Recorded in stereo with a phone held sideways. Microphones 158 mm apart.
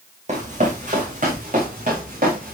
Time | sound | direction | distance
0.3 | running footsteps | 50° right (ahead or behind) | 4 m